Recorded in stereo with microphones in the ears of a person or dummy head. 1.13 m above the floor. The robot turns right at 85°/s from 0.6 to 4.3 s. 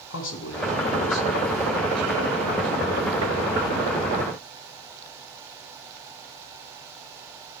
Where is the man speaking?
80° left, 1.4 m; by 3.2 s 55° right, 1.4 m.